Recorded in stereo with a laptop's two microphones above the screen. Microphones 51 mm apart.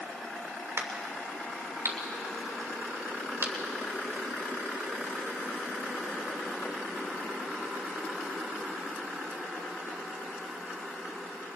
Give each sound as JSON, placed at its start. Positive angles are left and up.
{"t": 0.8, "sound": "a crack", "side_deg": -65, "distance_m": 3.0}